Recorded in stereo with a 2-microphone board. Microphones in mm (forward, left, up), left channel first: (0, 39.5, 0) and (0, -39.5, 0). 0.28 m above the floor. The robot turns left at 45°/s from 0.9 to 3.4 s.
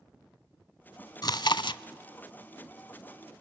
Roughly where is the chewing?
Left.